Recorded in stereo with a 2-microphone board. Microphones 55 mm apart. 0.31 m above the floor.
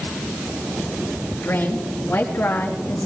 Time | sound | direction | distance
1.4 | a woman speaking | 45° left (ahead or behind) | 4 m